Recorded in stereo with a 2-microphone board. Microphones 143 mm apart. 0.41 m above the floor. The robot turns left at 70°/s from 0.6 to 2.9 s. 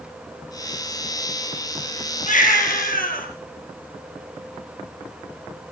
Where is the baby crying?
120° left, 4 m; by 3.3 s 75° left, 4 m.